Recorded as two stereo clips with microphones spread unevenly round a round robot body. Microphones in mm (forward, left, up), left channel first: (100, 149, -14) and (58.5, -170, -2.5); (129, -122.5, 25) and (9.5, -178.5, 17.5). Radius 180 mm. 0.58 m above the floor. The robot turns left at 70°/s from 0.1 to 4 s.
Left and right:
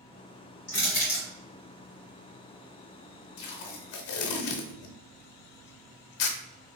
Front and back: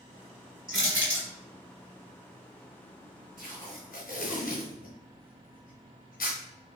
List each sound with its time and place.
0.7 s crushing: 145° left, 1.4 m; by 1.2 s 105° left, 1.4 m
3.4 s tape being pulled: 115° left, 0.8 m; by 6.4 s 75° left, 0.8 m